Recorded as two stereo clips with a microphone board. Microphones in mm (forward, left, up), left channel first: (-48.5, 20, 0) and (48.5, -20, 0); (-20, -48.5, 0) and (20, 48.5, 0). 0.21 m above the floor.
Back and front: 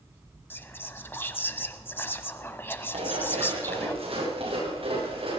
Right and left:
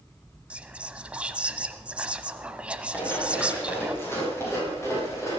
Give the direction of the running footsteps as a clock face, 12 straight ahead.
1 o'clock.